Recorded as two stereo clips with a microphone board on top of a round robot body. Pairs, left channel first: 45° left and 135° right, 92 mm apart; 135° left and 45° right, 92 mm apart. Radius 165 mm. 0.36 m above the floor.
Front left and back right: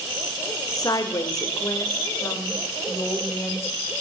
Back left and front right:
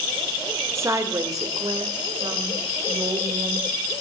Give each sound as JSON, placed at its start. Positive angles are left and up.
{"t": 0.8, "sound": "a woman speaking", "azimuth_deg": 10, "distance_m": 1.5}